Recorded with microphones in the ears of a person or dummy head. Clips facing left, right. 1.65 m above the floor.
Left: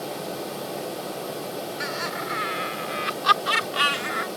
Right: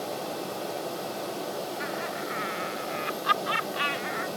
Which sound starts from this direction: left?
Laughter, at 1.8 s.